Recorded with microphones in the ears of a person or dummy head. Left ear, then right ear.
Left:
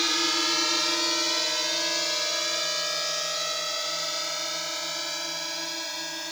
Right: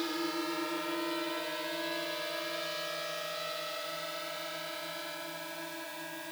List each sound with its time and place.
0.0 s a drone: 65° left (ahead or behind); by 6.3 s 80° left